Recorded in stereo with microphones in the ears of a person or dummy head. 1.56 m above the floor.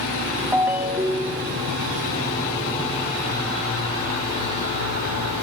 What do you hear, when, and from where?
0.5 s a ringtone: 10° right (ahead or behind), 2.5 m